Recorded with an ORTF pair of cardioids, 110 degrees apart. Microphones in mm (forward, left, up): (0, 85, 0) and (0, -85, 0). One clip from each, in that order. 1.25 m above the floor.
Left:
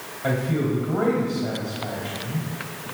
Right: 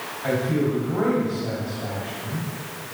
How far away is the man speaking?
About 2.5 m.